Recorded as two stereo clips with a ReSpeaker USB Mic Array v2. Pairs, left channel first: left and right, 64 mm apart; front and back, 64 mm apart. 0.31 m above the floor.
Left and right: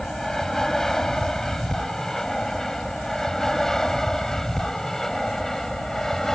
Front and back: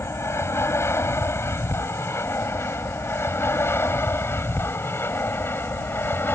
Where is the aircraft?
10° left.